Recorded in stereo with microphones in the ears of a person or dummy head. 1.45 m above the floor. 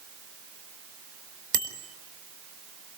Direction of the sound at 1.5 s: 55° right (ahead or behind).